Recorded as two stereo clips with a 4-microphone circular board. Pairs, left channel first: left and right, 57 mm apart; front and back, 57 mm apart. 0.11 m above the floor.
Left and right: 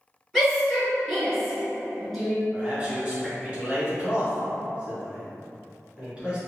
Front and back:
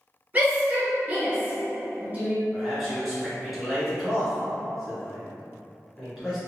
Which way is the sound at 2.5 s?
95° right.